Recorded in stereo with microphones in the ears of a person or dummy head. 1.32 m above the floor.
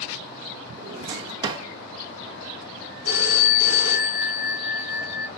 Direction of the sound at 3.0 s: 75° left (ahead or behind).